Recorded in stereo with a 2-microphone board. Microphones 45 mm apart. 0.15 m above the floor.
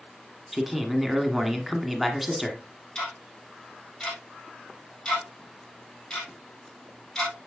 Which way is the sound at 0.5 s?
5° right (ahead or behind).